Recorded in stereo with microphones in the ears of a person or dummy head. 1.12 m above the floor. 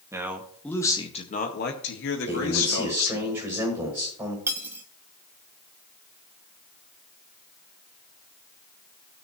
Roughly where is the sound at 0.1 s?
Centre.